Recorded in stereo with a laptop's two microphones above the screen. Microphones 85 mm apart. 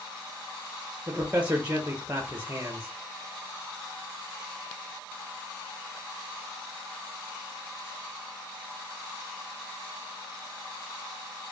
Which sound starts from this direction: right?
A man speaking, at 1.1 s.